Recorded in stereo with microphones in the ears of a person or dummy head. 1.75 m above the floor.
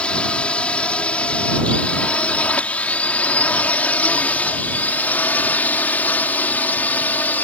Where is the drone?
5° left (ahead or behind); by 7.5 s 10° left (ahead or behind).